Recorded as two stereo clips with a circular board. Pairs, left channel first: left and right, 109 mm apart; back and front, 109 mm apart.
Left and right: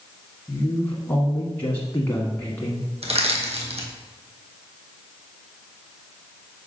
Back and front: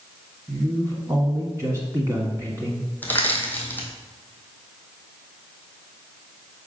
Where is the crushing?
105° right, 1.2 m.